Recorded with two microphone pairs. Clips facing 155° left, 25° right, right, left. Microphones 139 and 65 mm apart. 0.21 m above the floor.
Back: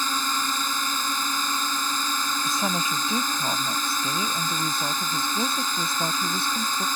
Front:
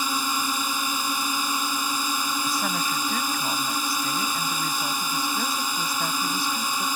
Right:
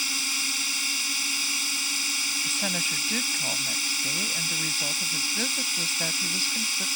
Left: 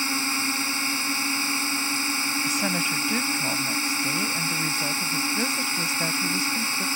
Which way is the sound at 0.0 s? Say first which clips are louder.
Front 1 dB, left 6 dB; 50° left.